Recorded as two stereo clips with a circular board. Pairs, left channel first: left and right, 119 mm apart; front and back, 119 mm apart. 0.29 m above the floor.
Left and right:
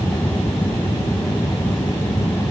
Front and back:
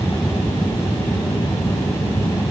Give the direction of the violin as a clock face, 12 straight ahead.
I don't hear a violin.